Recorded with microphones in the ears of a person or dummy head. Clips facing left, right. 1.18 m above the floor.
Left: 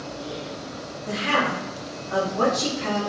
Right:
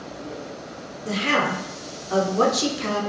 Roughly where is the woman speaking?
Right.